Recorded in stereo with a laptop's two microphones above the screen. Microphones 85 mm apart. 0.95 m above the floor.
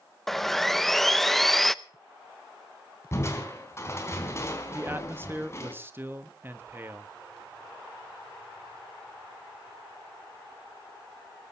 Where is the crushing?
30° left (ahead or behind), 4 m.